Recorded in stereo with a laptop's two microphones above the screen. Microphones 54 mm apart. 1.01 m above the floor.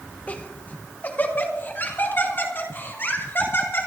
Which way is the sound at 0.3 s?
30° left (ahead or behind).